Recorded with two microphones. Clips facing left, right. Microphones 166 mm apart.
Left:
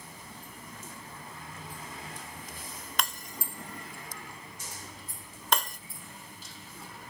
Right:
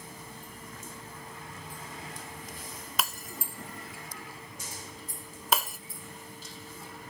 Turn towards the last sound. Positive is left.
turn(degrees=-5)  # may be behind; listen again after turning